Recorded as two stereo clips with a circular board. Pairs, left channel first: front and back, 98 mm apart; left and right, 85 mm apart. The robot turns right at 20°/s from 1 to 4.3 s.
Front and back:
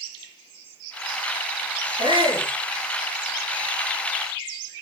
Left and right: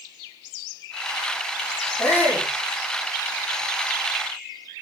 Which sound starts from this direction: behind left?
A shout, at 2.0 s.